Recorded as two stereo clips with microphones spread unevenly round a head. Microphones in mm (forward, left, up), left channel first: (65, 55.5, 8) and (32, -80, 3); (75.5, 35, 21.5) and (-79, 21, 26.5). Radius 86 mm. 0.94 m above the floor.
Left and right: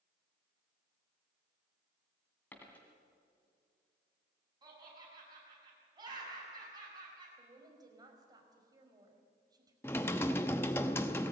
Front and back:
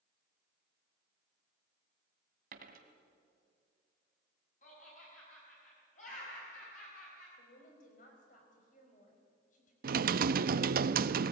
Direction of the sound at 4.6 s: 45° right.